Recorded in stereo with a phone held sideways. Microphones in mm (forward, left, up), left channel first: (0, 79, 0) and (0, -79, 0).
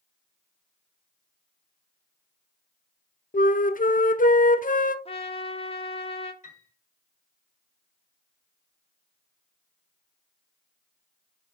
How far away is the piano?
About 2.5 m.